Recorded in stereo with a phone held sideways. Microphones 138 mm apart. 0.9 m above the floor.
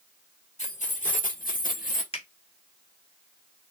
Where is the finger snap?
45° left (ahead or behind), 1.9 m.